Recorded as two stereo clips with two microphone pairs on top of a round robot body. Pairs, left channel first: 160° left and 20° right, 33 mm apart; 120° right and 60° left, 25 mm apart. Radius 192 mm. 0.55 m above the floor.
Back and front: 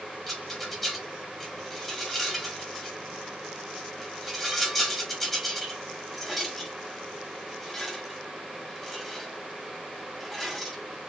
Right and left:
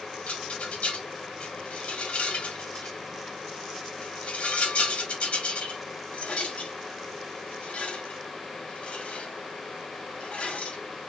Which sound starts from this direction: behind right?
A rattle, at 0.3 s.